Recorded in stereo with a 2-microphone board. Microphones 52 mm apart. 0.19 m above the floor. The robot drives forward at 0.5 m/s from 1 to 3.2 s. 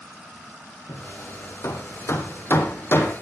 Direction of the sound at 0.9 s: 55° left (ahead or behind).